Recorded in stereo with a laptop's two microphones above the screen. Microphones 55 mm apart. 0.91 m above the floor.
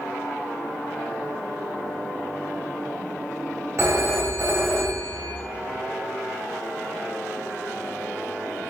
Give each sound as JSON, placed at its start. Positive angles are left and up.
{"t": 3.8, "sound": "a phone ringing", "side_deg": -50, "distance_m": 0.8}